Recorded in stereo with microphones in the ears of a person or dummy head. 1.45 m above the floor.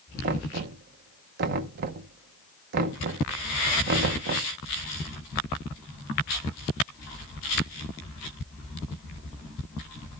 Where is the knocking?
45° right (ahead or behind), 0.7 m.